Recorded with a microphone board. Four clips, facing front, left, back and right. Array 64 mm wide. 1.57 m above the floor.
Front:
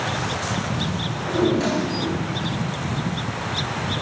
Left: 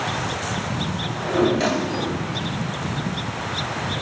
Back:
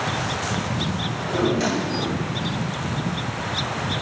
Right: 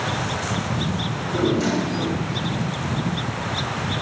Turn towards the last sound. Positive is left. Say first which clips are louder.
# left 4 dB, front 2 dB
turn(degrees=90)